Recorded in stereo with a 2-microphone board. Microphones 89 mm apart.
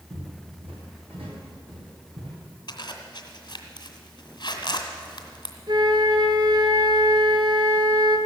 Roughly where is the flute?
Right.